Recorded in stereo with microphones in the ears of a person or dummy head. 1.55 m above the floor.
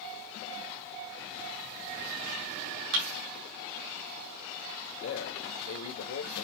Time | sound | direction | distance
2.9 | a thud | 70° right (ahead or behind) | 4 m
5.0 | a man speaking | 75° left (ahead or behind) | 1.8 m